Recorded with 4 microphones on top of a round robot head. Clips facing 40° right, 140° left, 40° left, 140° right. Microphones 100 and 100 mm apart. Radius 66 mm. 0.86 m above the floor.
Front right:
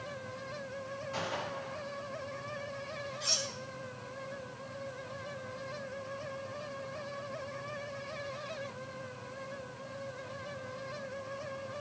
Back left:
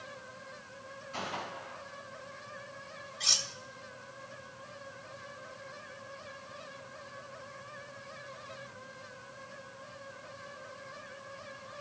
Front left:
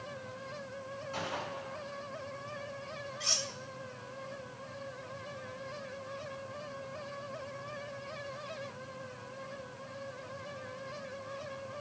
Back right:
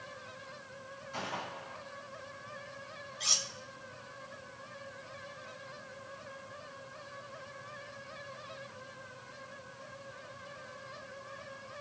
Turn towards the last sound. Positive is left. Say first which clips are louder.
# front right 4 dB, even
turn(degrees=145)